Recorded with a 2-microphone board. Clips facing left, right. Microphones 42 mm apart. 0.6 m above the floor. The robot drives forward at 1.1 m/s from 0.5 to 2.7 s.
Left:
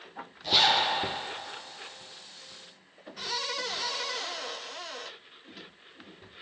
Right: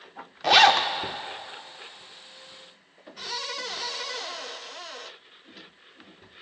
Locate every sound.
0.4 s a zipper: 75° right (ahead or behind), 0.6 m; by 0.9 s 50° right (ahead or behind), 0.8 m